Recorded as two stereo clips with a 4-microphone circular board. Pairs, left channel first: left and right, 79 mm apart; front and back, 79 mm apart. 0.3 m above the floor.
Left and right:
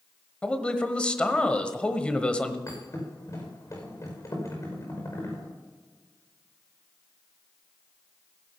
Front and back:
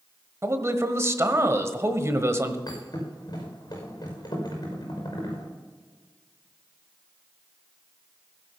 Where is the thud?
40° left, 5.5 m.